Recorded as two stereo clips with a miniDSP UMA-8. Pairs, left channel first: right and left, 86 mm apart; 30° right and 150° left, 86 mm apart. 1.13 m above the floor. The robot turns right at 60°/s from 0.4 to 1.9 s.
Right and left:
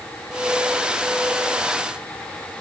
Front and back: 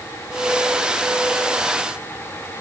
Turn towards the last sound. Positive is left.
No sound to turn to.